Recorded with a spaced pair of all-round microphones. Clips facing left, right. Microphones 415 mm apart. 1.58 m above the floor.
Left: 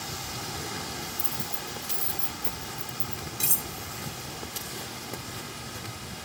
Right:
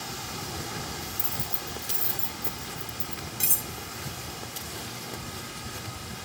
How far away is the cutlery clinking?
About 0.8 m.